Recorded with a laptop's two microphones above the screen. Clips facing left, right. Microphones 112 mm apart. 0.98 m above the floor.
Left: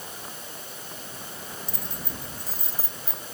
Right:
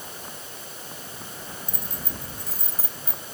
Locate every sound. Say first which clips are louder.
1.7 s keys jangling: right 1 dB; 50° right (ahead or behind)